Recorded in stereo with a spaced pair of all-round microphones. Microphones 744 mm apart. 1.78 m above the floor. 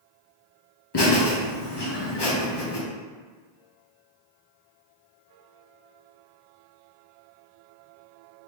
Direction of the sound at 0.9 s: 35° left (ahead or behind).